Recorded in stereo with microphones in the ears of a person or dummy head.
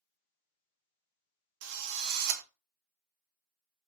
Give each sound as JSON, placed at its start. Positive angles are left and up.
{"t": 1.6, "sound": "a drill", "side_deg": -70, "distance_m": 0.6}